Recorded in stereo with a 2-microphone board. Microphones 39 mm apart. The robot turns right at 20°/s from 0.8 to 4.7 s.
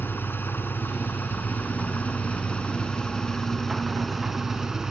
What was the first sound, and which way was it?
An engine running, 115° left.